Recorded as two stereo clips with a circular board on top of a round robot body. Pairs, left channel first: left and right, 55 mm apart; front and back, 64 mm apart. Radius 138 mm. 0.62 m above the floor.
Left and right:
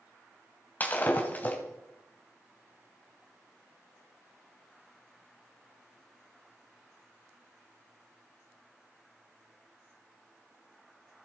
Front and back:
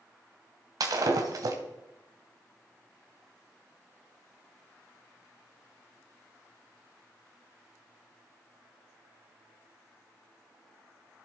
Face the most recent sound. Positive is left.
turn(degrees=150)